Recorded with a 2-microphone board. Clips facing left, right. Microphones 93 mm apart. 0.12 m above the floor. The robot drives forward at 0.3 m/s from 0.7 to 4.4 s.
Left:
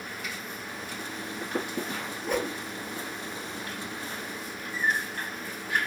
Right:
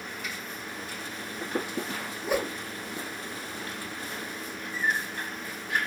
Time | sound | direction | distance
2.2 | a whoosh | 5° right (ahead or behind) | 0.8 m